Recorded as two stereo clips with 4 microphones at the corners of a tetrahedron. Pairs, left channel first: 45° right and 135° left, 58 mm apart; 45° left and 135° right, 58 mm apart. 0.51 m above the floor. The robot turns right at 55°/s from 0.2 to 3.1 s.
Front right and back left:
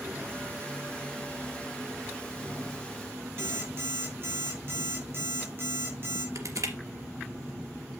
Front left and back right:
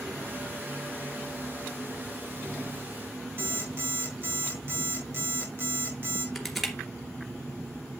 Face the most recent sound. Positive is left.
turn(degrees=135)